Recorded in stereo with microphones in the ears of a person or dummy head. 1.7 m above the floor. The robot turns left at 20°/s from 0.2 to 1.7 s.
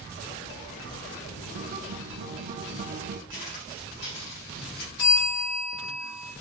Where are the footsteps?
55° left (ahead or behind), 3 m; by 4.9 s 40° left (ahead or behind), 2.5 m.